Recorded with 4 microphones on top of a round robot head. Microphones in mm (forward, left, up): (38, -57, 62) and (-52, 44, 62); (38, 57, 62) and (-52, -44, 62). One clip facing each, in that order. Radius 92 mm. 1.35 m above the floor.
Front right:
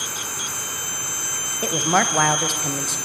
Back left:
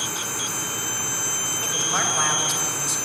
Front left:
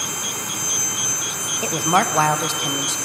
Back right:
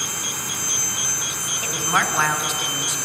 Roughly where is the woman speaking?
Ahead.